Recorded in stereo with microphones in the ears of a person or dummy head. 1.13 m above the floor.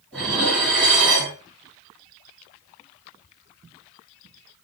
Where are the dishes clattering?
Centre (ahead or behind), 1.7 m.